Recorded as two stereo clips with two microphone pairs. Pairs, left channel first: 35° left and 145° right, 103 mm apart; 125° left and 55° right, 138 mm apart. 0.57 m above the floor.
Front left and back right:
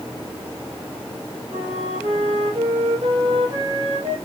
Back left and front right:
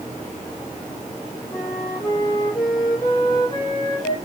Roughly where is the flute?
Behind.